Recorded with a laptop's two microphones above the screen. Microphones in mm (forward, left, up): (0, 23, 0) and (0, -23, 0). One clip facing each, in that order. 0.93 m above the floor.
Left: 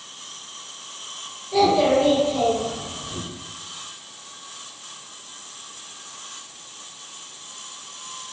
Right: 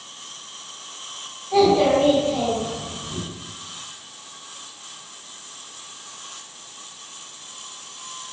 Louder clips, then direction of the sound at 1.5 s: Right 1 dB; 55° right (ahead or behind).